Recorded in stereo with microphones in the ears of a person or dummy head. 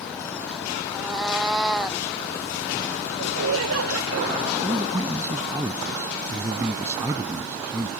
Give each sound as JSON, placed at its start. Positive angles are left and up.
{"t": 0.9, "sound": "a cat meowing", "side_deg": 0}
{"t": 3.2, "sound": "laughter", "side_deg": -85}
{"t": 4.6, "sound": "a man speaking", "side_deg": -15}